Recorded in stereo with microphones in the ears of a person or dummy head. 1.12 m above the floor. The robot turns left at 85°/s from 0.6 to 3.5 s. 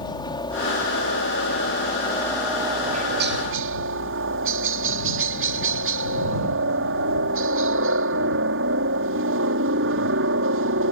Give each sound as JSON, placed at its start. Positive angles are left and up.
{"t": 0.0, "sound": "a helicopter", "azimuth_deg": 155}